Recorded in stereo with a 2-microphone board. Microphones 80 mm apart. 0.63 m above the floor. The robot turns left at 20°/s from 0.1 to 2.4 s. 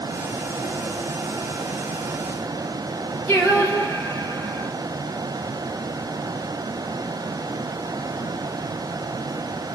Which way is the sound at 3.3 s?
35° left (ahead or behind).